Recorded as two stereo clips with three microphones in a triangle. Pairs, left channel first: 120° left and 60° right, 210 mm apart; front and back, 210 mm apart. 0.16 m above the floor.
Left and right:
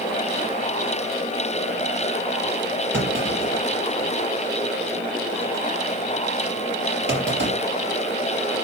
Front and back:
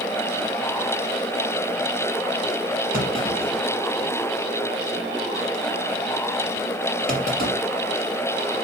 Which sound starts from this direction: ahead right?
A clunk, at 2.9 s.